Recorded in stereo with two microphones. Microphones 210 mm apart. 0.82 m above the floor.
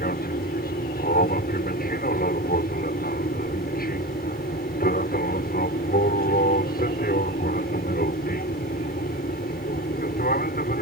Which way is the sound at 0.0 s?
45° left (ahead or behind).